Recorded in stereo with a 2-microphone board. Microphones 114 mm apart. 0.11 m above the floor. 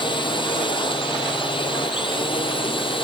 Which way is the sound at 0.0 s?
45° left (ahead or behind).